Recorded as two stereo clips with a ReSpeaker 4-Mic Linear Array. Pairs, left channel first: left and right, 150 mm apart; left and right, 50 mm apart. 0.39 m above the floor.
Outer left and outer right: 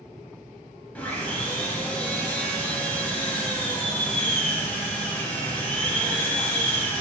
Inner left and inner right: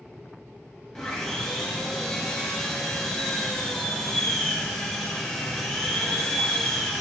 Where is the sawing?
10° left (ahead or behind), 0.6 m.